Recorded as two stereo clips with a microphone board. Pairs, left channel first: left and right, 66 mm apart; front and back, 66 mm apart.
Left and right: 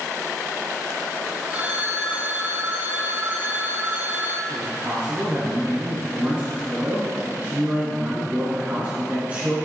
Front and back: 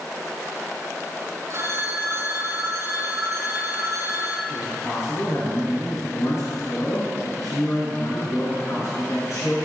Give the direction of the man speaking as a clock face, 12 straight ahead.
1 o'clock.